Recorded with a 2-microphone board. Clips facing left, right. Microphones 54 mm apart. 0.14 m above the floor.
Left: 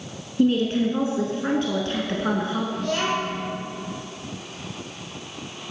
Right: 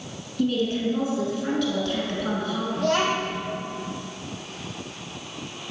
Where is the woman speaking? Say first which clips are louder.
Left 4 dB; 35° left (ahead or behind), 1.4 m.